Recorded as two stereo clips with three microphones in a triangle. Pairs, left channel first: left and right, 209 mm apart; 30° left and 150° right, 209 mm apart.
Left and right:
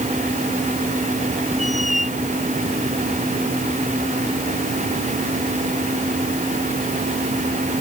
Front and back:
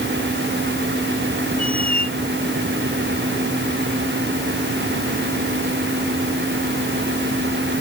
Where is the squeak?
145° left.